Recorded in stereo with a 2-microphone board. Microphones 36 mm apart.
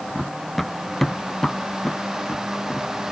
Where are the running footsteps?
Centre (ahead or behind); by 2.9 s 25° left (ahead or behind).